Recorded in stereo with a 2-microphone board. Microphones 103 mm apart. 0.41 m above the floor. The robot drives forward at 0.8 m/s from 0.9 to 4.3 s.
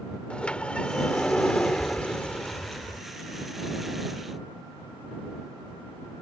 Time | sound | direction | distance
0.3 | a sliding door | 10° left (ahead or behind) | ?